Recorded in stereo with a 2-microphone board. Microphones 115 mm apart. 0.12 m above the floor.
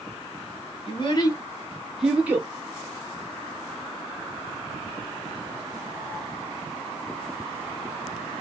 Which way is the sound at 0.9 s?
50° left (ahead or behind).